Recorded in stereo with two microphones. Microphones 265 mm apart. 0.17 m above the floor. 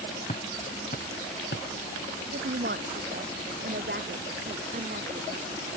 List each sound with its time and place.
0.3 s footsteps: 25° left (ahead or behind); by 1.7 s 45° left (ahead or behind)
2.3 s a woman speaking: 45° right (ahead or behind)